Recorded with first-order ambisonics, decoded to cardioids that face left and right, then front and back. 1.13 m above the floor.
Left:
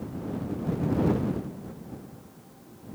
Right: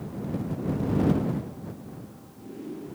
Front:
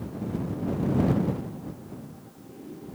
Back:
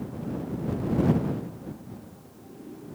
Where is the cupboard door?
No cupboard door in this recording.